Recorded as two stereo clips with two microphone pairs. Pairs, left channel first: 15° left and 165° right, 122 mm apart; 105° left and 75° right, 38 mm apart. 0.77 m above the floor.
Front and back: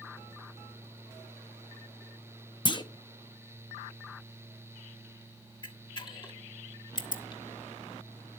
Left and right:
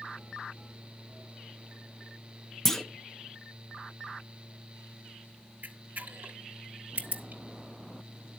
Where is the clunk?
30° left, 0.9 m.